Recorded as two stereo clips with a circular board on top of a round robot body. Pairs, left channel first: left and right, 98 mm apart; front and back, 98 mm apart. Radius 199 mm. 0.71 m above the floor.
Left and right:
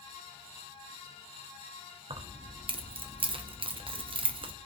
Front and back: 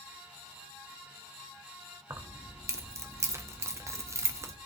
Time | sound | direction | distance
2.1 | keys jangling | 120° right | 0.8 m